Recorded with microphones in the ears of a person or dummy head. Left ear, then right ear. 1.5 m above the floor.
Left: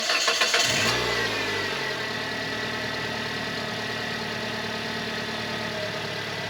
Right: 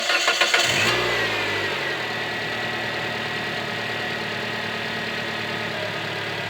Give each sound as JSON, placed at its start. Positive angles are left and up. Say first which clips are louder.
{"t": 0.0, "sound": "an engine running", "louder": "right 3 dB", "side_deg": -20, "distance_m": 0.8}